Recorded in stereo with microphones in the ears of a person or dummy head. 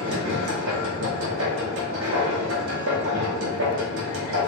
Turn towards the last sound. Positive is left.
turn(degrees=-75)  # may be behind; listen again after turning